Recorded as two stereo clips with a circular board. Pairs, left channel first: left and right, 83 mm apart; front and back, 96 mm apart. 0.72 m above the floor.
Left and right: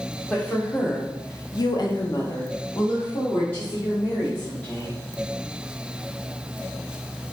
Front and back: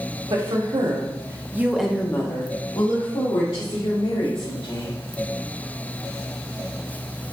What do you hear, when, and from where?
0.3 s a woman speaking: 165° left, 1.4 m; by 5.0 s 20° left, 3 m